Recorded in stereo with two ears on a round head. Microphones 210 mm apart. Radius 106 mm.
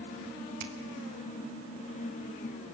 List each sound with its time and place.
0.6 s a finger snap: 40° right (ahead or behind), 1.6 m